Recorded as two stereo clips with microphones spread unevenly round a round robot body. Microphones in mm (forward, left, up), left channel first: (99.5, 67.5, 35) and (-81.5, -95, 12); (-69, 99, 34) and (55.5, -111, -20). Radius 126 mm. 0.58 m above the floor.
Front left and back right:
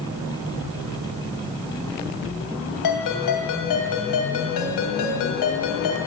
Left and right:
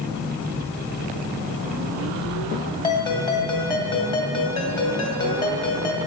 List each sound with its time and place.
2.8 s a ringtone: 45° left, 2.5 m